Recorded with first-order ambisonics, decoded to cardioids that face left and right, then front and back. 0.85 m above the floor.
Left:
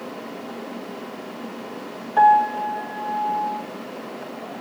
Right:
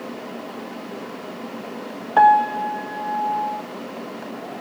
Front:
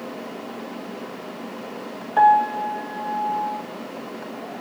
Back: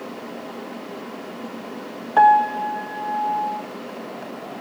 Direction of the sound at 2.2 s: 125° right.